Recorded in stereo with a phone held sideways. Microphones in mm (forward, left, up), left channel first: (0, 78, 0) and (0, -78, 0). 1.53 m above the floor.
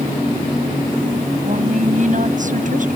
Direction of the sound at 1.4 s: 55° right (ahead or behind).